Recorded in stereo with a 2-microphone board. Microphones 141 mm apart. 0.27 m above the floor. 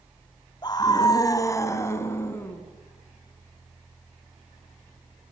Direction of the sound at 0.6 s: 30° left (ahead or behind).